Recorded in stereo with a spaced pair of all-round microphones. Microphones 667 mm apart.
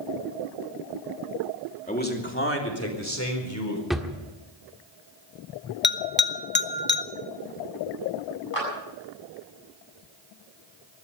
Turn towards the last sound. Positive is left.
turn(degrees=55)  # may be behind; listen again after turning